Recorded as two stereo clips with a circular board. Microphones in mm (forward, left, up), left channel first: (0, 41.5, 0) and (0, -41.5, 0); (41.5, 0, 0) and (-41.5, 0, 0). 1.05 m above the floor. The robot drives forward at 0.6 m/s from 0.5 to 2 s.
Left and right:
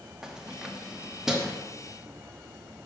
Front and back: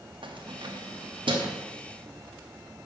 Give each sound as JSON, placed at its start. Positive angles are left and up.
{"t": 0.2, "sound": "keys jangling", "azimuth_deg": -175, "distance_m": 1.0}